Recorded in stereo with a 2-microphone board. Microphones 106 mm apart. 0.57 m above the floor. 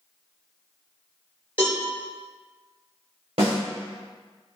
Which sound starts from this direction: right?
A snare drum, at 3.4 s.